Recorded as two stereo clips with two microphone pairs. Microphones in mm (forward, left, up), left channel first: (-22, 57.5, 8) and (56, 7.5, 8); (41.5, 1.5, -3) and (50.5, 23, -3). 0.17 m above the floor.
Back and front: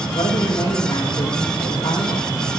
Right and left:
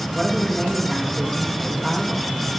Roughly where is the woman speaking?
Behind left.